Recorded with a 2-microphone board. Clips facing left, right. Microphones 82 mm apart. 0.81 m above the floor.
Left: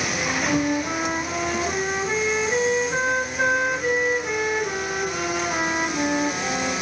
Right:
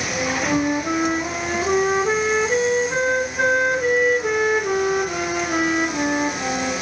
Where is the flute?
70° right (ahead or behind), 0.9 m.